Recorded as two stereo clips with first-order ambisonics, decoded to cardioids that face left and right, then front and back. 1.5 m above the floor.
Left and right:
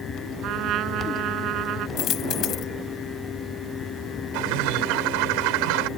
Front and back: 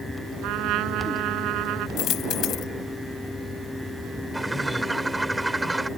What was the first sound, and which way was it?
A trumpet, 140° right.